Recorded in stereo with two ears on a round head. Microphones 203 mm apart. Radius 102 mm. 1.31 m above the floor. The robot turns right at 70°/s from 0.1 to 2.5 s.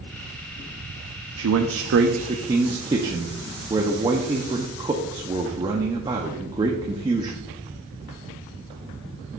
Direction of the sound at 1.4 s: 100° right.